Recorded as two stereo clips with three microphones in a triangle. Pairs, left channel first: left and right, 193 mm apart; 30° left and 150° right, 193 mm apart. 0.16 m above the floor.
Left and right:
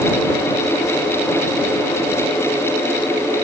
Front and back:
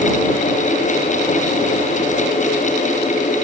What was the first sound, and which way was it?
Only background noise.